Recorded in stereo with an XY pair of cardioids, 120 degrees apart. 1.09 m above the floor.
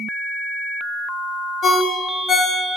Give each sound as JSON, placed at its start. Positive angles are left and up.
{"t": 1.6, "sound": "a ringtone", "azimuth_deg": 50, "distance_m": 0.8}